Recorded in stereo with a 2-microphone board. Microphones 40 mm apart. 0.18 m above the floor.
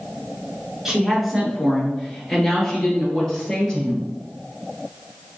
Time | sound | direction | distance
0.8 | a woman speaking | 10° right (ahead or behind) | 1.9 m